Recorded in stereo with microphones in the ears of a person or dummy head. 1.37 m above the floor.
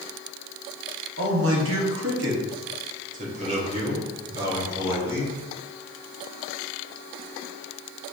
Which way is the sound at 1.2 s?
65° right (ahead or behind).